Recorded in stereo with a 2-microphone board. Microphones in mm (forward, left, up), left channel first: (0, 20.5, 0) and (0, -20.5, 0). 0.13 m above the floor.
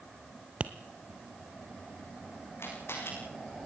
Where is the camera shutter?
80° left, 8 m.